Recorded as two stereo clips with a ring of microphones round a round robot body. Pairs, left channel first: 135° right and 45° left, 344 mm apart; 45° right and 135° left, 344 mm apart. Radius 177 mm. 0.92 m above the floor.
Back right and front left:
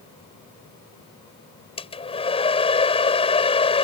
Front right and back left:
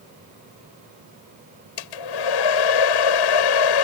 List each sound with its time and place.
1.8 s a hair dryer: 60° right